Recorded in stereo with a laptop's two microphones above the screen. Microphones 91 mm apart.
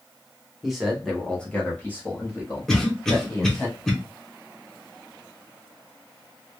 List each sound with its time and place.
0.6 s a man speaking: 5° right (ahead or behind), 0.8 m; by 3.7 s 25° left (ahead or behind), 1.5 m
2.7 s a cough: 5° left (ahead or behind), 0.7 m